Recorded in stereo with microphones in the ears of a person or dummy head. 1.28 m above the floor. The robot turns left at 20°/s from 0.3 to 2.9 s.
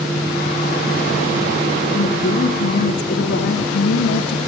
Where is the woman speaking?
40° left (ahead or behind), 2.5 m; by 4.4 s 55° left (ahead or behind), 2.5 m.